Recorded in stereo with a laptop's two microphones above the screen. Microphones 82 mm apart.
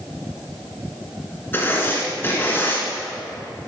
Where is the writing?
25° left (ahead or behind), 1.8 m.